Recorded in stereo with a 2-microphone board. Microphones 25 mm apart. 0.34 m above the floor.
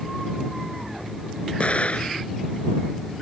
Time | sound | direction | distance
1.6 | an explosion | 50° left (ahead or behind) | ?